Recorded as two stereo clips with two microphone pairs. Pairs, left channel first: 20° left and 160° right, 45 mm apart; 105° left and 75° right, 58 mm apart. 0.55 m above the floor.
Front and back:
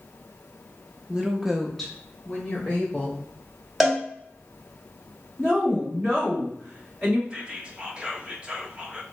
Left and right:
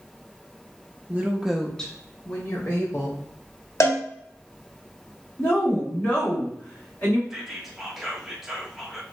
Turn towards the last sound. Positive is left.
turn(degrees=-155)